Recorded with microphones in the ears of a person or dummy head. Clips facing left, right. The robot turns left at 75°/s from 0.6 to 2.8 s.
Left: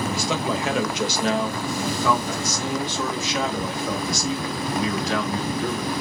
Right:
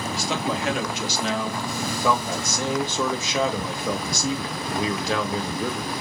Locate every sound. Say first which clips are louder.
0.1 s a man speaking: left 2 dB; 95° left, 1.0 m; by 5.9 s 70° right, 1.0 m